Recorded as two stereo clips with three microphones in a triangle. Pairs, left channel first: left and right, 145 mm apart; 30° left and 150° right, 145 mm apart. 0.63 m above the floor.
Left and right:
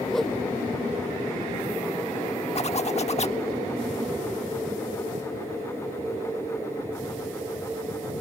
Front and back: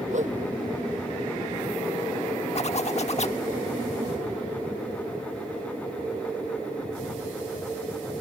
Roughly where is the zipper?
Ahead left.